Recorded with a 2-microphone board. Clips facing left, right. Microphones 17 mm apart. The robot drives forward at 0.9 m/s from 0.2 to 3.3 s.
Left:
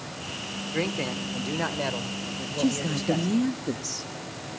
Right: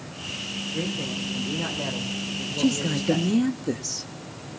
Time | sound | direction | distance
0.7 | a man speaking | 55° left (ahead or behind) | 1.7 m
2.6 | a woman speaking | 10° right (ahead or behind) | 0.5 m